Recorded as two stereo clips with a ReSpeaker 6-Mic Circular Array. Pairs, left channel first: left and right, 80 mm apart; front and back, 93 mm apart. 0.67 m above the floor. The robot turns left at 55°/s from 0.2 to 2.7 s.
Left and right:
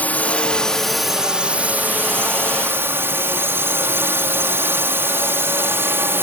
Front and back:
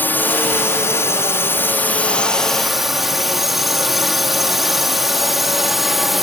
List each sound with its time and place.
0.0 s a drone: 40° left; by 6.2 s 95° right